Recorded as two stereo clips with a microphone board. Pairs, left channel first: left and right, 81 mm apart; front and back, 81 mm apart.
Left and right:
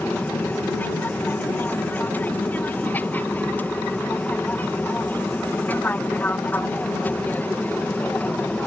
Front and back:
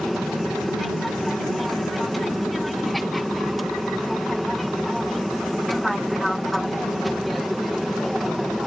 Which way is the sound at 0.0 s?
90° left.